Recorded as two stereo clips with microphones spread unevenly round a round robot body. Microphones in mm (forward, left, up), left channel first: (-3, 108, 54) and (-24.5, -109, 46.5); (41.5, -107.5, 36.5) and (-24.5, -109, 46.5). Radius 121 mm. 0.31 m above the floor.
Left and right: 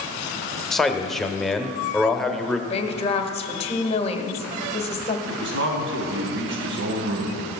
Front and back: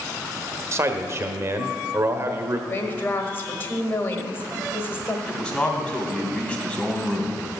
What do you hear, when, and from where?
0.7 s a man speaking: 175° left, 1.2 m
2.7 s a woman speaking: 30° left, 1.3 m
5.3 s a man speaking: 70° right, 3 m